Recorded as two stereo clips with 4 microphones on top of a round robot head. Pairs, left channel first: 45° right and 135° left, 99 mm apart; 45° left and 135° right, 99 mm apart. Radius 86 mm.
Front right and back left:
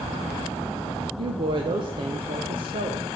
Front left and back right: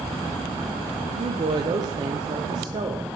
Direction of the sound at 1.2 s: 175° left.